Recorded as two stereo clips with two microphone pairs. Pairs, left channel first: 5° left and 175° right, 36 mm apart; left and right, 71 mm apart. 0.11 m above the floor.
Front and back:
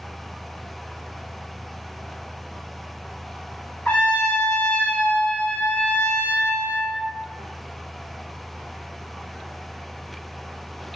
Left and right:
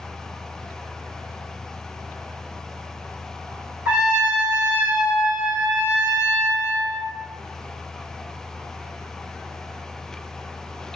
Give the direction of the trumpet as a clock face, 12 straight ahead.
1 o'clock.